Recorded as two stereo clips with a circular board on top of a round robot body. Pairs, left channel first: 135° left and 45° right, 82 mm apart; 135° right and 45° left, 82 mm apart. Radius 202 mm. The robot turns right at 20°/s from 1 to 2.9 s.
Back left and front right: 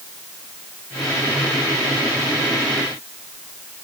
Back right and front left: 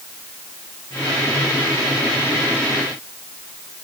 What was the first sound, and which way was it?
Only background noise.